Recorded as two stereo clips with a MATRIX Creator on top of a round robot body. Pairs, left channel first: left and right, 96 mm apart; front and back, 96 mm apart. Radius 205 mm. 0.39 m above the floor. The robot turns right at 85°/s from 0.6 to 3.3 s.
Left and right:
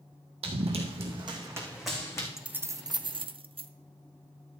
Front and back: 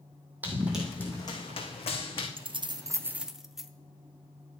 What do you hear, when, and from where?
0.4 s running footsteps: 105° right, 1.5 m; by 2.3 s 35° left, 2.5 m
2.4 s keys jangling: 175° right, 0.8 m; by 3.7 s 95° right, 0.8 m